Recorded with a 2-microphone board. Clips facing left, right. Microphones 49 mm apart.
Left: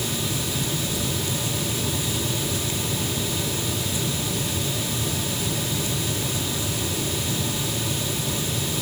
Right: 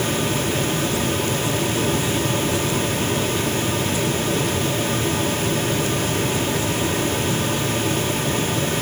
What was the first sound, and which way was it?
Only background noise.